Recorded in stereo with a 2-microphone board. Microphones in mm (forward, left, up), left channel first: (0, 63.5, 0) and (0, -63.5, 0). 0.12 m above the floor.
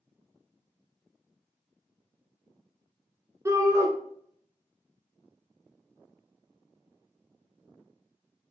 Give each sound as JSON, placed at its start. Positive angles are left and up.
{"t": 3.5, "sound": "a shout", "side_deg": -25, "distance_m": 1.2}